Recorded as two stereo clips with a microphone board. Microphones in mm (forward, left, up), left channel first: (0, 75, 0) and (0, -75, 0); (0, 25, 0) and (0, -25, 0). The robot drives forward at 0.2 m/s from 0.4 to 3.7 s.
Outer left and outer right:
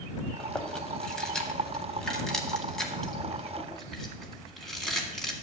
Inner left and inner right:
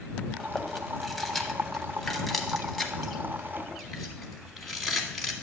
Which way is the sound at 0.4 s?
5° left (ahead or behind).